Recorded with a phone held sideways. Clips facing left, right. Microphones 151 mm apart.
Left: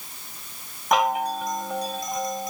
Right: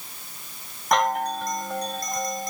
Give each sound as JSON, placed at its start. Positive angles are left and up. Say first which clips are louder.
{"t": 0.9, "sound": "a chime", "louder": "left 1 dB", "side_deg": 5}